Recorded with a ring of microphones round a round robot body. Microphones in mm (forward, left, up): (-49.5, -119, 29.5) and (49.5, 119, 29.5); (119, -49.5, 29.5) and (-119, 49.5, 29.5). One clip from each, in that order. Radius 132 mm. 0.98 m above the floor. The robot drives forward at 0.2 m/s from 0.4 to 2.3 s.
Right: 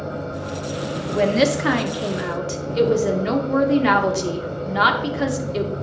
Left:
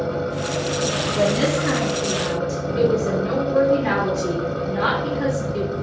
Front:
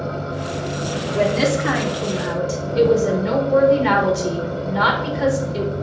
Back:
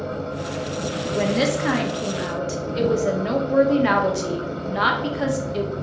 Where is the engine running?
70° left, 1.2 m; by 5.8 s 90° left, 1.2 m.